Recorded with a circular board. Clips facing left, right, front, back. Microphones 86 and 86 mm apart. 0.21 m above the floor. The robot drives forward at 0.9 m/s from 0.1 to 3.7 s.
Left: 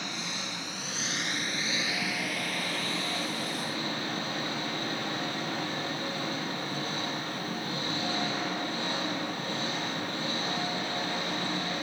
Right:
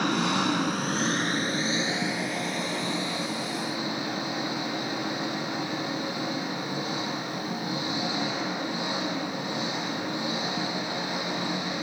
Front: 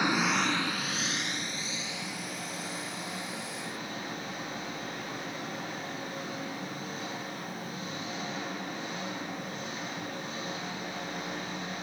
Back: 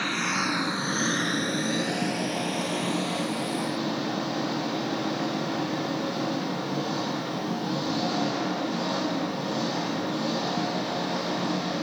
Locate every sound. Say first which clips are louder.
0.0 s an engine running: right 13 dB, even; 75° right, 0.9 m; by 11.8 s 165° right, 3 m